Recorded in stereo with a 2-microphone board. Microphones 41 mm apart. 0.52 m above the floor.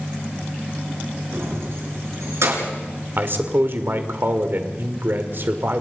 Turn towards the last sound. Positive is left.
turn(degrees=-55)  # may be behind; listen again after turning